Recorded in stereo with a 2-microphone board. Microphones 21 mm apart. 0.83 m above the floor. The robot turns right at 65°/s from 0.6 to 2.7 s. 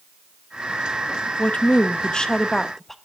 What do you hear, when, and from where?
1.4 s a woman speaking: 85° left, 0.6 m; by 3.0 s 170° left, 0.6 m